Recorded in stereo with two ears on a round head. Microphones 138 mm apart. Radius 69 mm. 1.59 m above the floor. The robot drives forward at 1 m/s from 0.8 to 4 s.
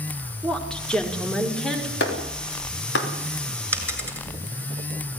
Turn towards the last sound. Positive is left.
turn(degrees=10)  # may be behind; listen again after turning